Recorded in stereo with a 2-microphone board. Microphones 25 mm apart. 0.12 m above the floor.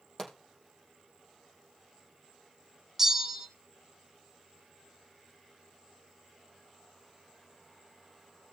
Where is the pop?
20° left (ahead or behind), 3.5 m.